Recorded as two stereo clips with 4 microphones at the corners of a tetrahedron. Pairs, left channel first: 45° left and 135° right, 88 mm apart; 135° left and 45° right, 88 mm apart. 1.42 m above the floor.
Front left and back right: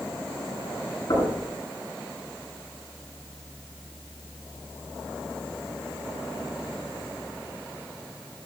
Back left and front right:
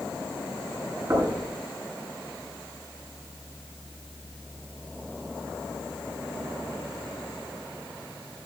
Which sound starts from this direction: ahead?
Knocking, at 1.1 s.